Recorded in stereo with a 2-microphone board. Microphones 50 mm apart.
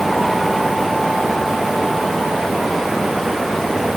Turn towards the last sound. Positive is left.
No sound to turn to.